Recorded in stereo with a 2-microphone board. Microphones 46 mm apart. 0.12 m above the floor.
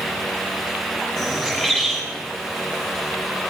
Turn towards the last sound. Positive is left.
turn(degrees=15)  # may be behind; listen again after turning